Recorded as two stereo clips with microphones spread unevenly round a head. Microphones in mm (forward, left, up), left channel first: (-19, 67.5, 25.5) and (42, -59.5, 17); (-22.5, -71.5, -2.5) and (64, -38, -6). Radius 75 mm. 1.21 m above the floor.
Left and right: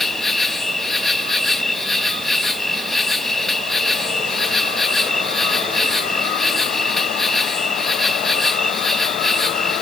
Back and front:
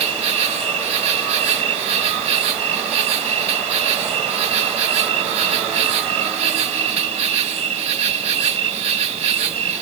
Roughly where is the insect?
Ahead left.